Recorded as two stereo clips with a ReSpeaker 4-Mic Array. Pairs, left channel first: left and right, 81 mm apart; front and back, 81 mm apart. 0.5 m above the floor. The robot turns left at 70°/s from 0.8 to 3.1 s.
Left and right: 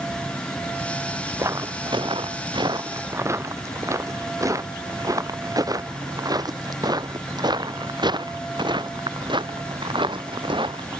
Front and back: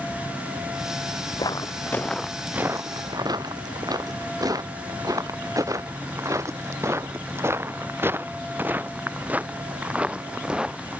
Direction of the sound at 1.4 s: 35° right.